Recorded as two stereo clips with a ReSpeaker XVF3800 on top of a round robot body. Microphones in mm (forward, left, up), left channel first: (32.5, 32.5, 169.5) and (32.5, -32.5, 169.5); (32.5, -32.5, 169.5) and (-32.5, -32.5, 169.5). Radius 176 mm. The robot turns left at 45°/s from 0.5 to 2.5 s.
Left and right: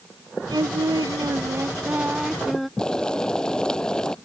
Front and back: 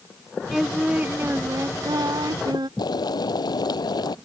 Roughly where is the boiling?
Ahead.